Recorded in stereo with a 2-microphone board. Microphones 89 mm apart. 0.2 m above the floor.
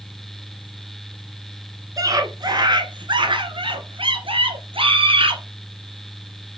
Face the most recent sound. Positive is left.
turn(degrees=-70)  # may be behind; listen again after turning